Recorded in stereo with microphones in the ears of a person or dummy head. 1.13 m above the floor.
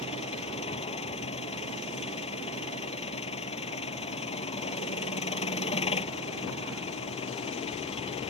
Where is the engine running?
35° left (ahead or behind).